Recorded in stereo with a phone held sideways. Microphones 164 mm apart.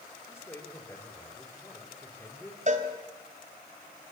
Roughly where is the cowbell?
Right.